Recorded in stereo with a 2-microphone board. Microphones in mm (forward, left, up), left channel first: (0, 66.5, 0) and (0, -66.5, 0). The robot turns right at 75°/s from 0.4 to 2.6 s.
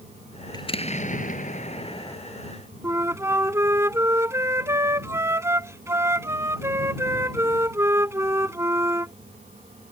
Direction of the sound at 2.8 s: 20° right (ahead or behind).